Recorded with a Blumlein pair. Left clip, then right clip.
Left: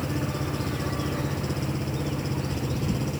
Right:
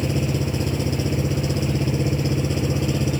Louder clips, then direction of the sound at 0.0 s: Right 5 dB; 65° right.